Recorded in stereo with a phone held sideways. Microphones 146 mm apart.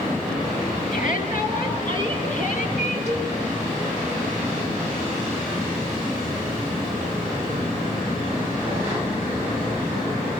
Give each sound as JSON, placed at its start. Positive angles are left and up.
{"t": 0.9, "sound": "a shout", "side_deg": 65, "distance_m": 7.0}
{"t": 3.1, "sound": "a cowbell", "side_deg": 50, "distance_m": 6.5}